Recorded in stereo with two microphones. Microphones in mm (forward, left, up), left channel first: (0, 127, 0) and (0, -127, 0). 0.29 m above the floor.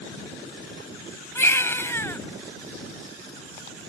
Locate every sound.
1.4 s a baby crying: 10° left (ahead or behind)